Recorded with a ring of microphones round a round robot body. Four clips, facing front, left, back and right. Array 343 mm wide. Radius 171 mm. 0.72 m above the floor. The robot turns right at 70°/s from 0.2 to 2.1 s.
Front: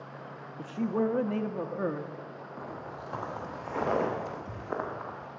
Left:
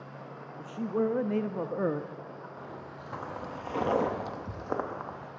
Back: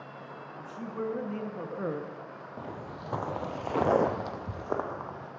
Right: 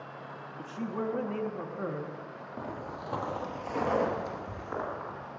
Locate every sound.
0.6 s a man speaking: straight ahead, 0.6 m; by 2.5 s 105° left, 0.6 m
2.6 s footsteps: 130° right, 1.3 m; by 5.3 s 130° left, 2 m